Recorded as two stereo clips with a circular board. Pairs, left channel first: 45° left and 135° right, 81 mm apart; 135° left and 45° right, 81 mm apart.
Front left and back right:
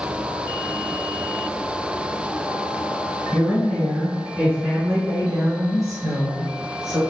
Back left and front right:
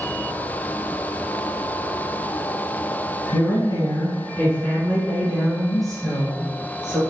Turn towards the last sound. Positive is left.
turn(degrees=-125)